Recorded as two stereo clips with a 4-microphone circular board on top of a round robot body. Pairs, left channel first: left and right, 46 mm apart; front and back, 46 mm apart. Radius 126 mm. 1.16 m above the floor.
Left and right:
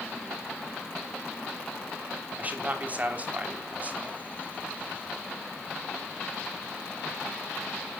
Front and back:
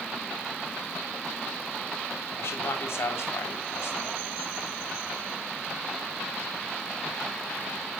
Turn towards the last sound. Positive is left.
turn(degrees=-30)